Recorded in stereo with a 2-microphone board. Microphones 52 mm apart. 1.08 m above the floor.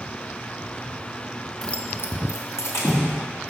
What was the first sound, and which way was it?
Keys jangling, 5° left (ahead or behind).